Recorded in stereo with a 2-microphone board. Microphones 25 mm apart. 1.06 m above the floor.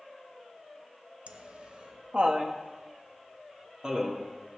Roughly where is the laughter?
Right.